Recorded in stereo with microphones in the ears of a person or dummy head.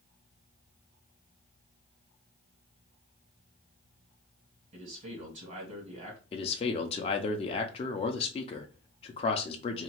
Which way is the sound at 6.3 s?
35° left (ahead or behind).